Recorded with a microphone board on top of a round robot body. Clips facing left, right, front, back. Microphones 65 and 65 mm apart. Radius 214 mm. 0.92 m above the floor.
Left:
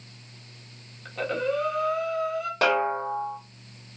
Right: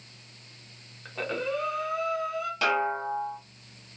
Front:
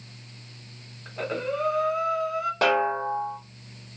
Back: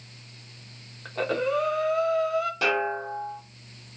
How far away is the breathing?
About 1.3 m.